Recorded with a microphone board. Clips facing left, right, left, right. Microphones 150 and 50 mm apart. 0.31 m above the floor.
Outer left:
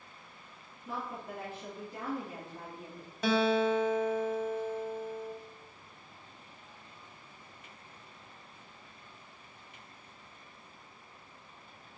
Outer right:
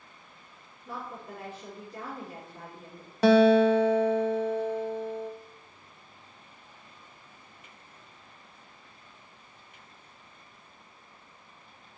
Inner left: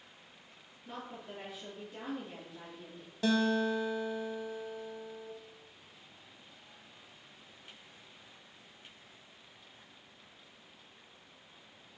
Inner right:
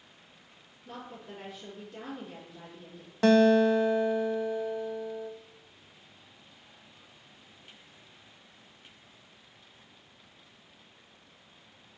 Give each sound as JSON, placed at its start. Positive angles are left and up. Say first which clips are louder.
{"t": 0.8, "sound": "a woman speaking", "louder": "even, inner right 1 dB", "side_deg": 5, "distance_m": 3.0}
{"t": 3.2, "sound": "a guitar", "louder": "outer right 9 dB, inner right 9 dB", "side_deg": -75, "distance_m": 0.5}